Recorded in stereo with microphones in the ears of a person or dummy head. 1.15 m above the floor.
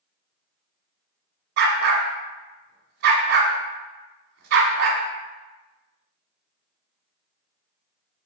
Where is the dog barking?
55° right (ahead or behind), 1.2 m.